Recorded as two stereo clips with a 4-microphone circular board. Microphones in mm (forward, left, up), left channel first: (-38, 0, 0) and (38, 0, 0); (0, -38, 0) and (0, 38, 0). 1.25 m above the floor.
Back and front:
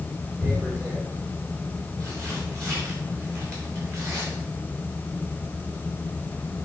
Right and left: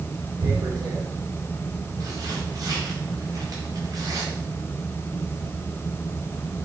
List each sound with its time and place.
0.4 s tearing paper: 50° left, 2.5 m